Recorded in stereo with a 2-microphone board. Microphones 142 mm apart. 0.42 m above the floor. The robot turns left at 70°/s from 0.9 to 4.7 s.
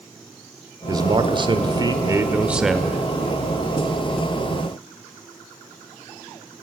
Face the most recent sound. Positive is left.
turn(degrees=40)